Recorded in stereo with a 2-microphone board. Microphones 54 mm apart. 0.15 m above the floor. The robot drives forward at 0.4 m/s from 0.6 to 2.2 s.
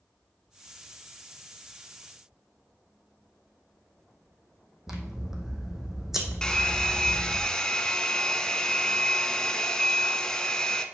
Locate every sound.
4.9 s scissors: 5° right (ahead or behind), 1.4 m
6.4 s a hair dryer: 15° left (ahead or behind), 0.6 m